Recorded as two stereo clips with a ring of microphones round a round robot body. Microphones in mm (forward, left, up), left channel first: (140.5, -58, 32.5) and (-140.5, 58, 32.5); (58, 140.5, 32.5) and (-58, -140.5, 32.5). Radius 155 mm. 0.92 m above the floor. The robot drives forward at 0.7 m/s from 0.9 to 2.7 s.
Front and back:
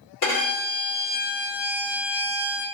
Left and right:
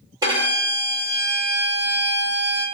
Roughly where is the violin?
Ahead right.